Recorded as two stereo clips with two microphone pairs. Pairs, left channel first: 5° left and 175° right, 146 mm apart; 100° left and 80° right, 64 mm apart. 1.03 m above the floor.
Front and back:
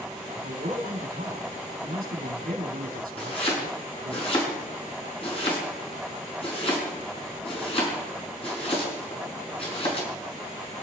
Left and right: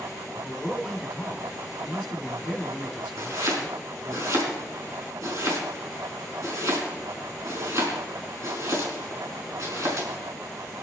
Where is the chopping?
40° right, 5 m.